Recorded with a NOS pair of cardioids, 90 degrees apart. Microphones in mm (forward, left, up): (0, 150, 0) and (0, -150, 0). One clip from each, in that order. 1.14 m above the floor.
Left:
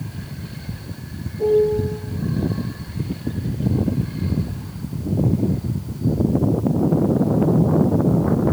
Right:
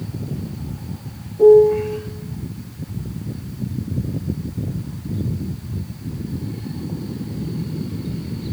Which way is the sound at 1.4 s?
65° right.